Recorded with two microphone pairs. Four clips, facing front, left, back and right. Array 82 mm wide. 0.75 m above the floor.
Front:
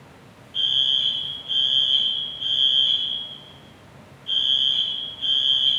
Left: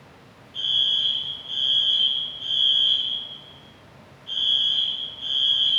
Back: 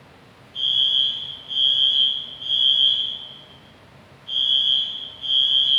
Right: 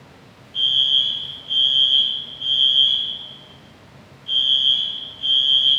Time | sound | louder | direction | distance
0.5 | a fire alarm | right 5 dB, back 1 dB | 25° right | 4 m